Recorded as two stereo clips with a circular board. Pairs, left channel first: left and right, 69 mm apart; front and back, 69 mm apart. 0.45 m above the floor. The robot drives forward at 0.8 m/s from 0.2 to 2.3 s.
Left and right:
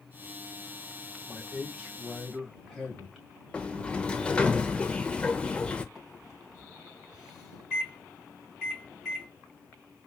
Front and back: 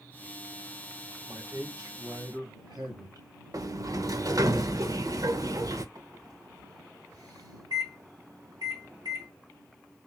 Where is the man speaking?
170° right, 1.7 m; by 3.3 s 175° right, 2.5 m.